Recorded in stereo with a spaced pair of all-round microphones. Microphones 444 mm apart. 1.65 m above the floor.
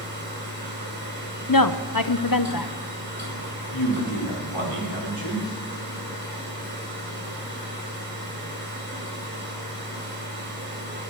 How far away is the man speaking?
About 5.5 m.